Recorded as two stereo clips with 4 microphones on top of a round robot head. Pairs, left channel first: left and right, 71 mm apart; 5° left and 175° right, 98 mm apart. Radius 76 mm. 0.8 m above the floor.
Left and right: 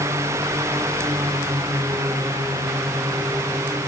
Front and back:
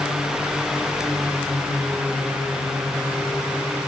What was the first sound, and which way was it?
Only background noise.